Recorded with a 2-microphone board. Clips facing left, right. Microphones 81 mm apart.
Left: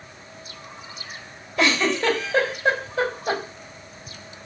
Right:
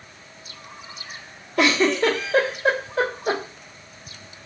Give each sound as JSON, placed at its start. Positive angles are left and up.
{"t": 1.6, "sound": "a giggle", "side_deg": -60, "distance_m": 1.1}